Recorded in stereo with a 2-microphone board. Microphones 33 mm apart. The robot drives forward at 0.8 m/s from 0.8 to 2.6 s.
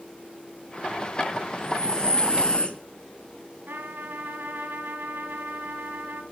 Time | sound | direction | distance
1.5 | breathing | 20° left (ahead or behind) | 3.5 m
3.7 | a trumpet | 85° right | 6 m